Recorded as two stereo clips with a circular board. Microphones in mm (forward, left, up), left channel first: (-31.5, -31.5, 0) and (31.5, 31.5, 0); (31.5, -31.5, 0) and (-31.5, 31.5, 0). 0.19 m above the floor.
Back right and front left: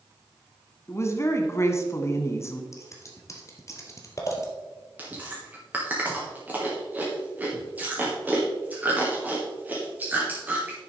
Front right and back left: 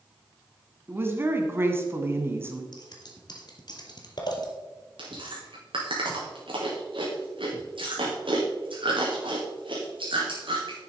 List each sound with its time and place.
0.9 s a woman speaking: 175° right, 1.7 m
2.7 s scissors: 80° right, 2 m
5.0 s chewing: 115° left, 3.5 m